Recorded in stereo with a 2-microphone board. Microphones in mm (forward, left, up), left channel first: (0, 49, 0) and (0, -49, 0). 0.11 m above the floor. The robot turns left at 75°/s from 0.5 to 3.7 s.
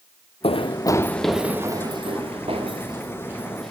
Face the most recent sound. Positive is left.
turn(degrees=10)  # may be behind; listen again after turning